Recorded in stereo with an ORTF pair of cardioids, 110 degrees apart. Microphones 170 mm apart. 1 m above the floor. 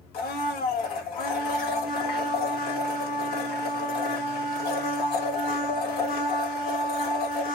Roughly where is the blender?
Ahead left.